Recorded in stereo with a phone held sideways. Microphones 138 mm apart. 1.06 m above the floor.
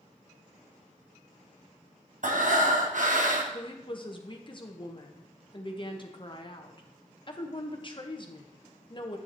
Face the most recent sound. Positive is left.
turn(degrees=35)  # may be behind; listen again after turning